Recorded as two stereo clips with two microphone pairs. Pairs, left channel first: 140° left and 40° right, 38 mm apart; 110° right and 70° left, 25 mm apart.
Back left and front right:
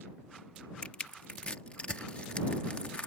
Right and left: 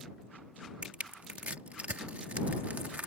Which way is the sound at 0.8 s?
85° left.